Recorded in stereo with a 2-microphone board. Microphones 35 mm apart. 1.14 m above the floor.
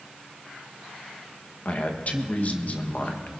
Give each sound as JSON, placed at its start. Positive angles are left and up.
{"t": 1.6, "sound": "a man speaking", "side_deg": 45, "distance_m": 1.5}